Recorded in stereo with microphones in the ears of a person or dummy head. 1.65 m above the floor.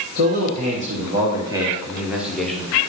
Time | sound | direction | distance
0.1 | a man speaking | 55° right (ahead or behind) | 1.3 m